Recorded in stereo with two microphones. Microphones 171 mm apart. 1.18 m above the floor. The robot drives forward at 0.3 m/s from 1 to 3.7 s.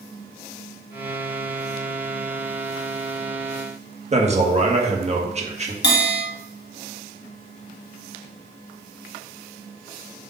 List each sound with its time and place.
4.1 s a man speaking: 40° right (ahead or behind), 1.5 m
5.8 s a bell: 75° left (ahead or behind), 1.8 m